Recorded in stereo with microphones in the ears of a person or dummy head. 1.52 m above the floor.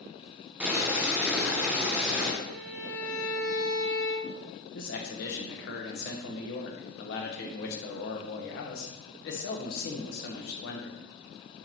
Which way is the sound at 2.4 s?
65° left (ahead or behind).